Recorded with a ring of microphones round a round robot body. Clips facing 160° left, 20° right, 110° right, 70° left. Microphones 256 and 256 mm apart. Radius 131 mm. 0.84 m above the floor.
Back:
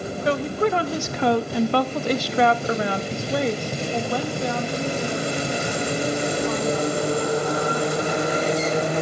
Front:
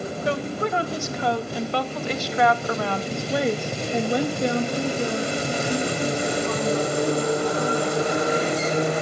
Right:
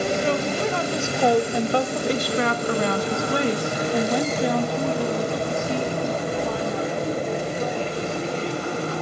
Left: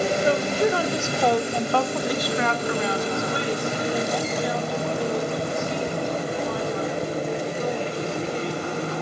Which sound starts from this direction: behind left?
A woman speaking, at 0.2 s.